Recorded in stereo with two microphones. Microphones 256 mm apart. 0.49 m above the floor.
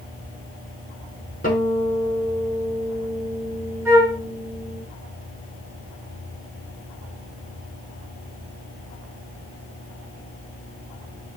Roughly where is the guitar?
Left.